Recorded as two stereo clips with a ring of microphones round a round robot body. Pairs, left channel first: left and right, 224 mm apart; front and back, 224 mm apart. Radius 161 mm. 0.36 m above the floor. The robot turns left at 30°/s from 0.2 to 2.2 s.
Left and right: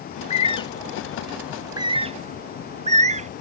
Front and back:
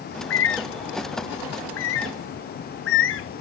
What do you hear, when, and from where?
0.1 s a bird: 30° left, 0.6 m; by 3.3 s 30° right, 0.6 m